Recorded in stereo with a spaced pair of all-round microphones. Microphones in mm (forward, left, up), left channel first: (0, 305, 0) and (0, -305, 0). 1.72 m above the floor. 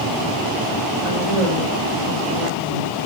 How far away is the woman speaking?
About 4.5 m.